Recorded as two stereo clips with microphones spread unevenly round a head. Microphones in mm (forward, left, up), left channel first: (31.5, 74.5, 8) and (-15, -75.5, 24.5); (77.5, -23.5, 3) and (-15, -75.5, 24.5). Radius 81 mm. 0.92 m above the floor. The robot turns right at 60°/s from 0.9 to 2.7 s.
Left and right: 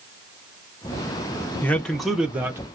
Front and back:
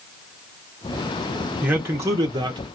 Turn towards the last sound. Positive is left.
turn(degrees=-170)